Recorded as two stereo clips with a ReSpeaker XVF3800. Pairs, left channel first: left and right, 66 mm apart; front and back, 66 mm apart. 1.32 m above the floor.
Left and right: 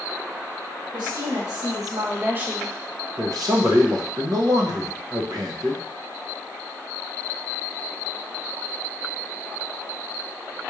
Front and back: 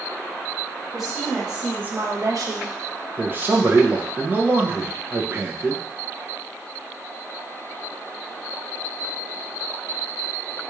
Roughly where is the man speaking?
Behind right.